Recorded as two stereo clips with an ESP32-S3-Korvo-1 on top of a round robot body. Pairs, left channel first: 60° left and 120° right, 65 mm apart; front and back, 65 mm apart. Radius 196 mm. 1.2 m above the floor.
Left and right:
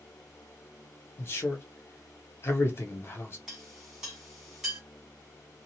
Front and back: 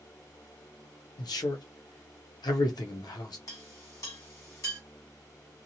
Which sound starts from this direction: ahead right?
A clink, at 3.5 s.